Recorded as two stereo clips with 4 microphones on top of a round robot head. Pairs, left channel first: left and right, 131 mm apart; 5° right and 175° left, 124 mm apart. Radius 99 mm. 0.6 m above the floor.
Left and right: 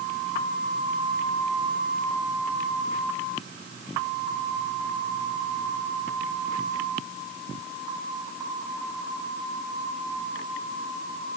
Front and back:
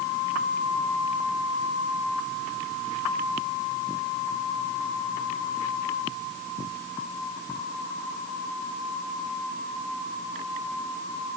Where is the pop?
No pop in this recording.